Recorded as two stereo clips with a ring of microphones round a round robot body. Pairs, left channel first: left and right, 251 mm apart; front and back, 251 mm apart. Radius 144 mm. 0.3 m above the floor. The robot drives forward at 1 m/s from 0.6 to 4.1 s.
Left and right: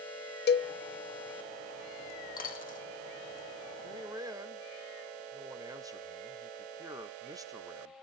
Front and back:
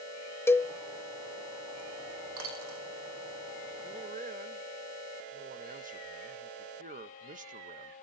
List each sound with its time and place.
0.5 s a cowbell: 75° left, 0.9 m; by 0.7 s 90° left, 0.8 m
2.4 s a dropped coin: 145° left, 4.5 m; by 2.8 s 150° left, 5 m
3.8 s a man speaking: 140° right, 1.0 m; by 7.9 s 155° right, 1.2 m